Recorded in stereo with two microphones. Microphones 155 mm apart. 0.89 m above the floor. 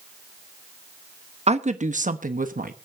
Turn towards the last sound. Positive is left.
turn(degrees=-65)  # may be behind; listen again after turning